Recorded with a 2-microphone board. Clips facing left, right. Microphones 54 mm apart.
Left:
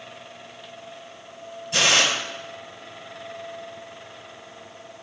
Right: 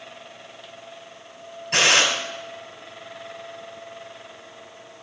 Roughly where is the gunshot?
Right.